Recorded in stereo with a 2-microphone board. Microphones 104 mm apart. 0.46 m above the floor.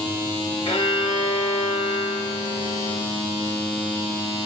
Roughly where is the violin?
Left.